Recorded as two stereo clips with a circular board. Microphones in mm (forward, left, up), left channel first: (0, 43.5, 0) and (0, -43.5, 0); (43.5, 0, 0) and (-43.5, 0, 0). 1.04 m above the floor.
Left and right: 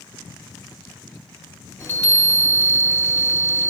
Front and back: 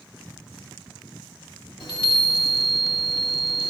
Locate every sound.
1.8 s a chime: 30° left, 2 m